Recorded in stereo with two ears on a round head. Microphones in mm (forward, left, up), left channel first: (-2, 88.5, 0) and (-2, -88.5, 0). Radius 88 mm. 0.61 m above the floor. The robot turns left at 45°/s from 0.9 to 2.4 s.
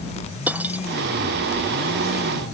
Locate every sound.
0.5 s cutlery clinking: 10° right (ahead or behind)